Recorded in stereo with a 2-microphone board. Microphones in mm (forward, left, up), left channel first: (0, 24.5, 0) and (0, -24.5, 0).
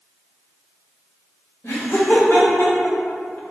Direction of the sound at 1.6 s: 65° left (ahead or behind).